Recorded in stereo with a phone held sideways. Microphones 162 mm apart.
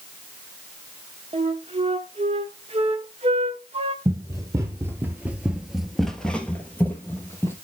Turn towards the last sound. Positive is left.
turn(degrees=15)  # may be behind; listen again after turning